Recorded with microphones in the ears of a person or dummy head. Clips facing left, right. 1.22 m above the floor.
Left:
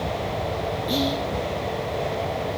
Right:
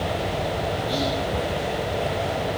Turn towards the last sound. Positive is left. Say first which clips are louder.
# left 3 dB
turn(degrees=30)  # may be behind; listen again after turning